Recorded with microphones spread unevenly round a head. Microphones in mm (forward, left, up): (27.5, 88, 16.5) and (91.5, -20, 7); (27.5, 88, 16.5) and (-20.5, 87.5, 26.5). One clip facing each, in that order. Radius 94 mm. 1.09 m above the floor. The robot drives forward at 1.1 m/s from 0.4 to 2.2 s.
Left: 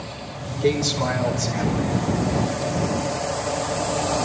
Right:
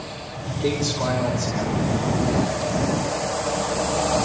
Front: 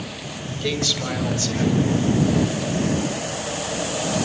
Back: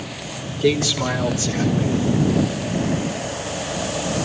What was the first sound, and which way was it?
A man speaking, 140° right.